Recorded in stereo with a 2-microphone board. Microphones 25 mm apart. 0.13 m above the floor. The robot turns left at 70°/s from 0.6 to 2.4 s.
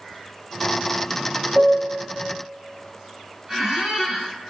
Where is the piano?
90° right, 1.1 m; by 2.2 s 130° right, 1.1 m.